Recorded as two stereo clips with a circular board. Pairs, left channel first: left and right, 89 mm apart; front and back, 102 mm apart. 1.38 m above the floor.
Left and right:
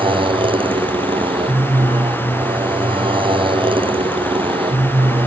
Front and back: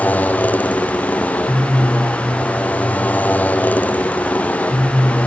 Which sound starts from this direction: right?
A motorcycle, at 0.0 s.